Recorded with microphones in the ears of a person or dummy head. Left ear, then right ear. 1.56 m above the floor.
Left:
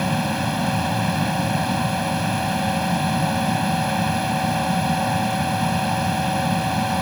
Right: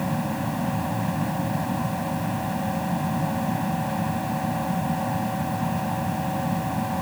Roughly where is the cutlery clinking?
I don't hear cutlery clinking.